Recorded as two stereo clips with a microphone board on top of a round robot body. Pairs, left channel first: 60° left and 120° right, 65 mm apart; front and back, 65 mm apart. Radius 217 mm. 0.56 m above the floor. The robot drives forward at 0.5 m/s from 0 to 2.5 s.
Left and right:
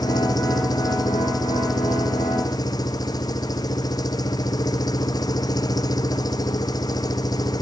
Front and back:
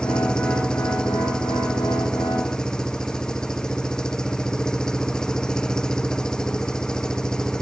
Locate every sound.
0.0 s an engine running: 80° left